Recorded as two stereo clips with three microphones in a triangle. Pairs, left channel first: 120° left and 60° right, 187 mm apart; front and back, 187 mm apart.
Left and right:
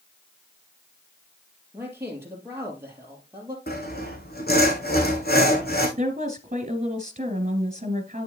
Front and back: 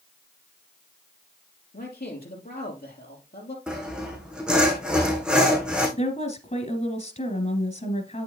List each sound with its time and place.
1.7 s a man speaking: 15° left, 3 m
3.7 s sawing: 95° left, 3 m
6.0 s a woman speaking: 30° right, 2 m